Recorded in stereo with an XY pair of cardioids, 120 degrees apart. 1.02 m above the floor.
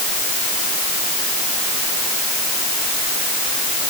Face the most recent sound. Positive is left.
No sound to turn to.